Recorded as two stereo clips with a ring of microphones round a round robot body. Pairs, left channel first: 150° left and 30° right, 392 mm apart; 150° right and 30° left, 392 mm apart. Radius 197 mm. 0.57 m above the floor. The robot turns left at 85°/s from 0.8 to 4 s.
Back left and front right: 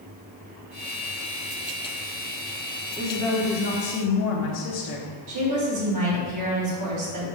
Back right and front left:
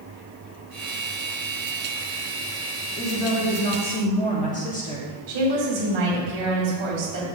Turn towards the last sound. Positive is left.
turn(degrees=15)